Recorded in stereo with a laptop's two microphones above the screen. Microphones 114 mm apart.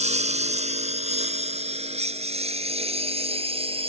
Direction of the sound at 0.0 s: 80° right.